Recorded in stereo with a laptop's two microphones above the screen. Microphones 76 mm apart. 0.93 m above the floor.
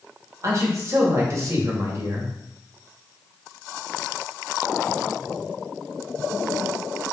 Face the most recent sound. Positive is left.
turn(degrees=-45)  # may be behind; listen again after turning